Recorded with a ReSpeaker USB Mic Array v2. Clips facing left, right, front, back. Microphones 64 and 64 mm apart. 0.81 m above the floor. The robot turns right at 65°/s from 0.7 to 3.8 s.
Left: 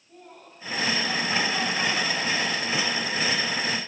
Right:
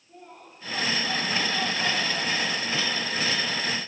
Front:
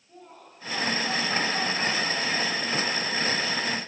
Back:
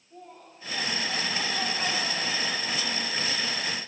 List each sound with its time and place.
0.1 s laughter: 10° right, 7 m; by 3.0 s 140° left, 7 m